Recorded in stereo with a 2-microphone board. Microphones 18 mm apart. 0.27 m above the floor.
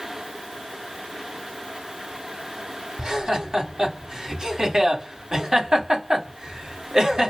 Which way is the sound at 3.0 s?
45° right (ahead or behind).